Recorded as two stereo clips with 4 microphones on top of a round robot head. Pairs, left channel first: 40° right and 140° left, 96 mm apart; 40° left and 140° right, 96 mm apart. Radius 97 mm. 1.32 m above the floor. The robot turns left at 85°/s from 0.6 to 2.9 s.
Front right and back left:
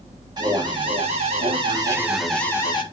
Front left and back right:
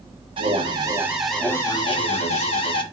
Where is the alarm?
170° right, 1.5 m; by 2.8 s straight ahead, 1.5 m.